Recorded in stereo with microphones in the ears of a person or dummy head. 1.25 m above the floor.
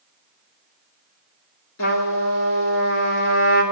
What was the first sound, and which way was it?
A trumpet, 65° left (ahead or behind).